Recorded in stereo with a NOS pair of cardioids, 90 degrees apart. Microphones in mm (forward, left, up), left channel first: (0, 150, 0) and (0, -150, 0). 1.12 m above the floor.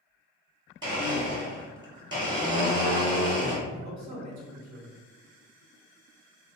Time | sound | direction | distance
0.8 | a blender | 15° right | 1.3 m
3.7 | a man speaking | 70° right | 1.3 m